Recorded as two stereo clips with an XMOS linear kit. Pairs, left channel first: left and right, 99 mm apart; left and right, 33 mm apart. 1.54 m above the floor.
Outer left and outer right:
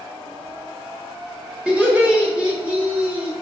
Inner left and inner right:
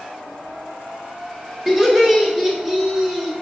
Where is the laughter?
15° right (ahead or behind), 0.8 m.